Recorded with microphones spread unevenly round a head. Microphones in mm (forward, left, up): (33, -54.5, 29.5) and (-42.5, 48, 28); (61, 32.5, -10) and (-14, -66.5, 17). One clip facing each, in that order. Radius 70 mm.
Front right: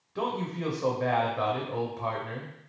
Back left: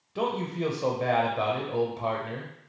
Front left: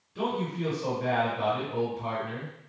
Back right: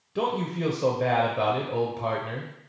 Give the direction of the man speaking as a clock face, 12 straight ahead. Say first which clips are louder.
Back left 2 dB, back right 3 dB; 5 o'clock.